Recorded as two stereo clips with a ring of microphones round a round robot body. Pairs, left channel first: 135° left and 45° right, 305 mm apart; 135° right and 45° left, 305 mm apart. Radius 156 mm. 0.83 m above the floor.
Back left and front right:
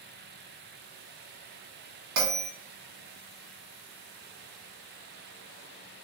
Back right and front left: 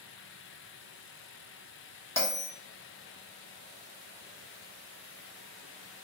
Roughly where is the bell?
Ahead right.